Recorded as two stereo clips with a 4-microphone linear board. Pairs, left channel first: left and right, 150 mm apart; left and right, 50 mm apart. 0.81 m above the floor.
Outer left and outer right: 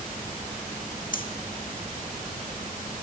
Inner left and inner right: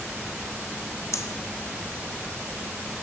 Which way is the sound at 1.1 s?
65° left (ahead or behind).